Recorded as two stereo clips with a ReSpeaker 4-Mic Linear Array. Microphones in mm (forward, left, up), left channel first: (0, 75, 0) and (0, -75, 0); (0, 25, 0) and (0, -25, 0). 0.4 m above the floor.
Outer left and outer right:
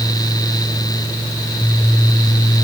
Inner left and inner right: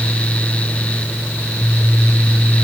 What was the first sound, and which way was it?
Only background noise.